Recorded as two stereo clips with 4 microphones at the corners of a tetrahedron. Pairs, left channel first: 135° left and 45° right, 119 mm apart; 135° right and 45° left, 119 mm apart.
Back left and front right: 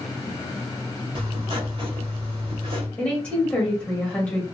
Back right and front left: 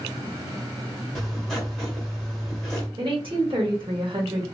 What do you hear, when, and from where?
1.1 s writing: 45° right, 1.5 m
3.0 s a woman speaking: 60° left, 1.1 m